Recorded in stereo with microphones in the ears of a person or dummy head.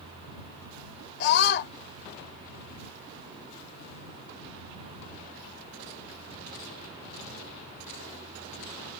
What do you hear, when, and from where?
1.2 s a scream: 60° left (ahead or behind)